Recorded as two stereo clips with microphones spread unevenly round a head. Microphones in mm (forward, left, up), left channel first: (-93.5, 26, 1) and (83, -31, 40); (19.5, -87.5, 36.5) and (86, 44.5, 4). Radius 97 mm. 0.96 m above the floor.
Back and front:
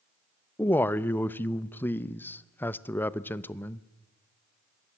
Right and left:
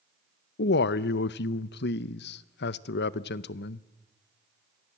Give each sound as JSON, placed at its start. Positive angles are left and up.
{"t": 0.6, "sound": "a man speaking", "azimuth_deg": -125, "distance_m": 0.7}